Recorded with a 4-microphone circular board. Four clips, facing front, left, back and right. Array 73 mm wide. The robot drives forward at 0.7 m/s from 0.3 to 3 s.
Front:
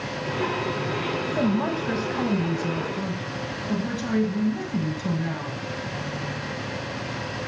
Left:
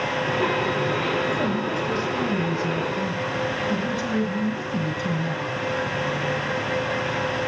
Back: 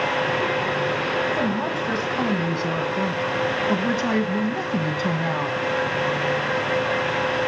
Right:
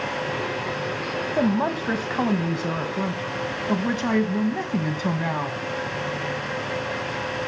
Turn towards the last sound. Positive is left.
turn(degrees=-130)